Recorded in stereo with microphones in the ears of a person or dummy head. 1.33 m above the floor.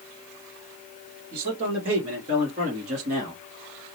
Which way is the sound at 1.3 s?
30° right (ahead or behind).